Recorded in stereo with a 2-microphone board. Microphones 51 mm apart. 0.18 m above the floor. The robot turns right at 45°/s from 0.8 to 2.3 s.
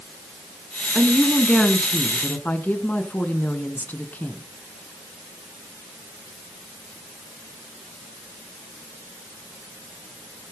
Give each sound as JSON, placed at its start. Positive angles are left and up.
{"t": 0.9, "sound": "a woman speaking", "azimuth_deg": -15, "distance_m": 2.5}